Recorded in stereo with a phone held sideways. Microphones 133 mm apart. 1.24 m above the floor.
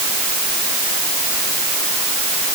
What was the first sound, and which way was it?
Only background noise.